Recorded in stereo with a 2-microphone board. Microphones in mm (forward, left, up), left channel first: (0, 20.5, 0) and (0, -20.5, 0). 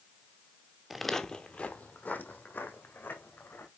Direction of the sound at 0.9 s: 5° right (ahead or behind).